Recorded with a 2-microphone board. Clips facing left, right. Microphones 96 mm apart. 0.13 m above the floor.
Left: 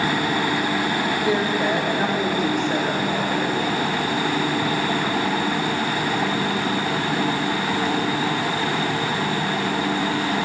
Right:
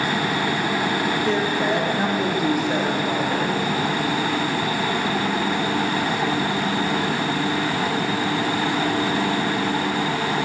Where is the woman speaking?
10° left (ahead or behind), 4 m; by 3.5 s 10° right (ahead or behind), 4.5 m.